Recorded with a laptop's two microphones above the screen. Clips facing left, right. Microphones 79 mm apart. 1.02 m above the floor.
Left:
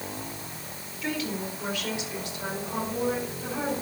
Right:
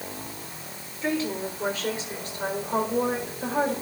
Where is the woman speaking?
30° right (ahead or behind), 4 m; by 3.7 s 55° right (ahead or behind), 5 m.